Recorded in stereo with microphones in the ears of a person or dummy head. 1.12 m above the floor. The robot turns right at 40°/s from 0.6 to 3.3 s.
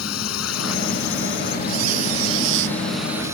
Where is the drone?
85° left; by 3.3 s 165° right.